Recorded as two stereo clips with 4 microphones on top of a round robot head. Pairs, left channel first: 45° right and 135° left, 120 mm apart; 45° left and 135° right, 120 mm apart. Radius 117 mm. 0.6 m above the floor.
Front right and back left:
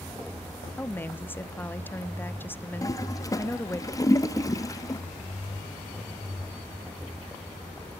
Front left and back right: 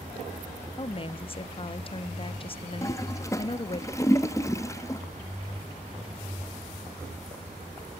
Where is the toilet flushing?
5° right, 1.0 m.